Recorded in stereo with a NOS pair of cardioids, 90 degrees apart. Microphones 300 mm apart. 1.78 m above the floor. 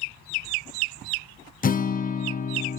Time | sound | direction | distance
1.6 | a guitar | 30° left | 0.8 m